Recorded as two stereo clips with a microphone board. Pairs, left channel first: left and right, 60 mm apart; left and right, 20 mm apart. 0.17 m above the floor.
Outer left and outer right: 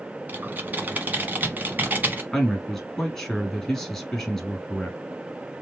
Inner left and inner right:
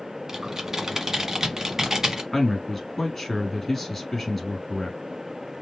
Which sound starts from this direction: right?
Typing on a keyboard, at 0.3 s.